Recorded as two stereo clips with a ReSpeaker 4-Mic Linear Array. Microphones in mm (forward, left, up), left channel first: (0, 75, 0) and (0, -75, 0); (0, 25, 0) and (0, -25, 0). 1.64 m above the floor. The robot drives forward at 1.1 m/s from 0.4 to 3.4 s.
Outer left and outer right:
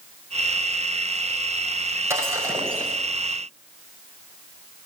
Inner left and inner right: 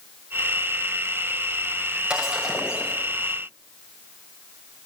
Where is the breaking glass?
20° right (ahead or behind), 5.5 m; by 3.0 s 15° right (ahead or behind), 6.5 m.